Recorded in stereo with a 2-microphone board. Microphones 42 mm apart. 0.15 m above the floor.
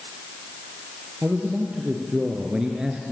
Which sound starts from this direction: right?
A man speaking, at 1.2 s.